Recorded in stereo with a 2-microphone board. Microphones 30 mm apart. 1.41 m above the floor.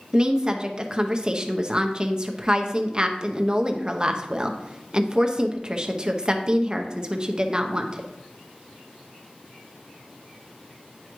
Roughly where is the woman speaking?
Right.